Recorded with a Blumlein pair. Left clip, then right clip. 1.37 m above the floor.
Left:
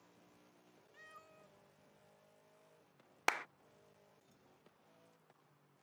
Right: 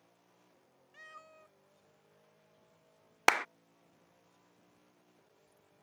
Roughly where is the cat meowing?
Ahead.